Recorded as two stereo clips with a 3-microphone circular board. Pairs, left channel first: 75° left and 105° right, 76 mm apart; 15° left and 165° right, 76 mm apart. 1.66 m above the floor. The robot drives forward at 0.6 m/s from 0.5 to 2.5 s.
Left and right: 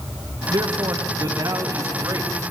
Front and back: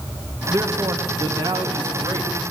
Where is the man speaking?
125° right, 1.6 m; by 2.5 s 150° right, 2.5 m.